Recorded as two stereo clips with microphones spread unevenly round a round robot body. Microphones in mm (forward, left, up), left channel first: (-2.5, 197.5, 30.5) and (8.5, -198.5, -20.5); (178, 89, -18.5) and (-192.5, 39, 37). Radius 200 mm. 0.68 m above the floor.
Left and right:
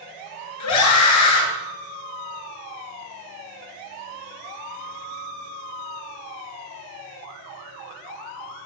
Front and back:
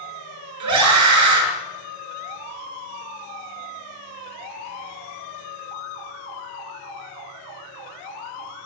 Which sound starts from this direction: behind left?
A scream, at 0.6 s.